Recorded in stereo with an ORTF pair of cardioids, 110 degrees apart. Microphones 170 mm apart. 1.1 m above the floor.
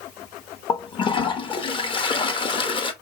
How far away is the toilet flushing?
About 0.9 m.